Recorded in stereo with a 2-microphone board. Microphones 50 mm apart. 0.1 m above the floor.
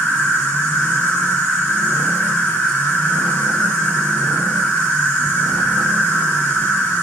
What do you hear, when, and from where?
0.0 s an insect: 25° left (ahead or behind), 0.7 m